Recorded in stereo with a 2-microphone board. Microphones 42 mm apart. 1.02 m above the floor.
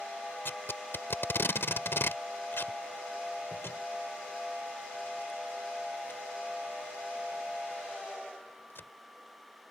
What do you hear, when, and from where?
0.5 s tape being pulled: 75° left (ahead or behind)